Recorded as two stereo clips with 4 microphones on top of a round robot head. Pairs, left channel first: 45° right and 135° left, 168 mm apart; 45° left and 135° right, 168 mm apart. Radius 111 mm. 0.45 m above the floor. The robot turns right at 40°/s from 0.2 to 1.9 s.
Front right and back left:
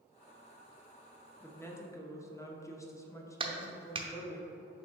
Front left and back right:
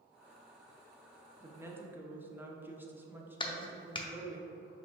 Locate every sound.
1.4 s a woman speaking: 100° right, 0.9 m; by 4.4 s 80° right, 0.9 m
3.4 s a clap: 90° left, 0.8 m